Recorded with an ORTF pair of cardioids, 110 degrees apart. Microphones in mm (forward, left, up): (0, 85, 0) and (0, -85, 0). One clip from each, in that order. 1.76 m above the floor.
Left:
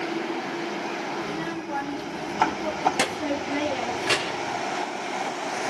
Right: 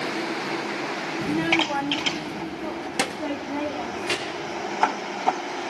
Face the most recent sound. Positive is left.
turn(degrees=10)